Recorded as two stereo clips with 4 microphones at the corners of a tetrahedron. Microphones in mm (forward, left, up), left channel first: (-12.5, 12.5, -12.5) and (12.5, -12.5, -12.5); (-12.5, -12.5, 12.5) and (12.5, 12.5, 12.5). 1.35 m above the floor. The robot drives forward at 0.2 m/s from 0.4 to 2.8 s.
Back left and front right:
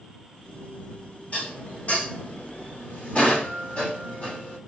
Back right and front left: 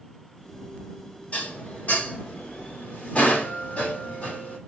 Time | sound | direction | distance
1.3 | dishes clattering | 175° left | 2.5 m